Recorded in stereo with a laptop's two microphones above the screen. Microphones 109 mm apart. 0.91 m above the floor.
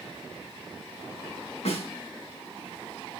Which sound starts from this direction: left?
A snare drum, at 1.6 s.